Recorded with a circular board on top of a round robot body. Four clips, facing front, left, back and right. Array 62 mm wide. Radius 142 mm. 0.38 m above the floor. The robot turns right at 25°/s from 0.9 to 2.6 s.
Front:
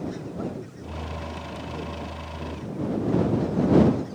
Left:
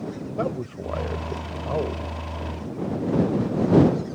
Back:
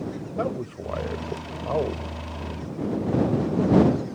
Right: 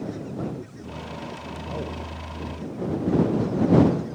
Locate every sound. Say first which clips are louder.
0.4 s a man speaking: left 5 dB, back 5 dB; 135° left; by 2.0 s 160° left